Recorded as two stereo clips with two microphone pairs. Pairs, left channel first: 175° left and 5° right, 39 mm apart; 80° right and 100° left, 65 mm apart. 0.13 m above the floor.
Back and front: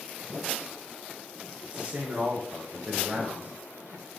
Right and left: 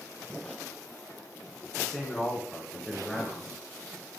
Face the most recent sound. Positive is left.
turn(degrees=10)